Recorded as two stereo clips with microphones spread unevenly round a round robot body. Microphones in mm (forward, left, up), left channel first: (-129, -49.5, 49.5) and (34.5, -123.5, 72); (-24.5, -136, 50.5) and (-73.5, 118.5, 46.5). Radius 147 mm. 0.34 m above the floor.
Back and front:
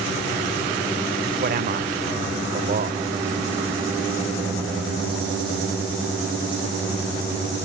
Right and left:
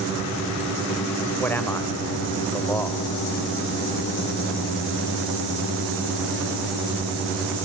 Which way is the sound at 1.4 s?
5° left.